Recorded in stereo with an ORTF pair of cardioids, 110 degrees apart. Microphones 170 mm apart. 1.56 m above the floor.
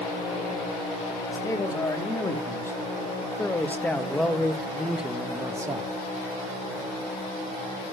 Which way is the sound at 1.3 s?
20° left.